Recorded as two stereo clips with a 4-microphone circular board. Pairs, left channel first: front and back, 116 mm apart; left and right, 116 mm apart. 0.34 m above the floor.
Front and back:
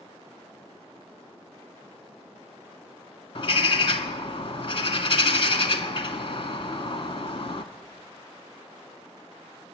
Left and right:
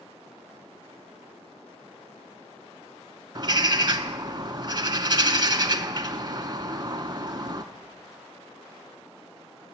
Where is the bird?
40° right, 0.5 m.